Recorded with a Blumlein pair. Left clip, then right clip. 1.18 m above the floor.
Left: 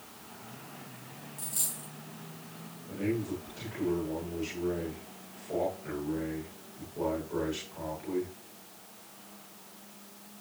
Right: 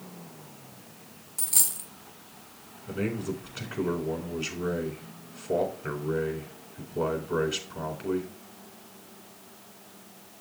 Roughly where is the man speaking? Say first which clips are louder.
Right 1 dB; ahead right.